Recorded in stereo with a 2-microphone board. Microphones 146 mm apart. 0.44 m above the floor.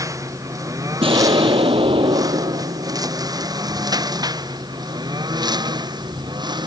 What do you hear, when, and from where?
0.0 s a lawn mower: 20° right (ahead or behind); by 6.7 s 30° right (ahead or behind)
1.0 s an explosion: 35° right (ahead or behind)